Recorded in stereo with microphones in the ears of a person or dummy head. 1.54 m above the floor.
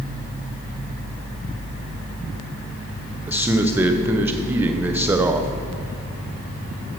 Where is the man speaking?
10° right (ahead or behind), 1.1 m.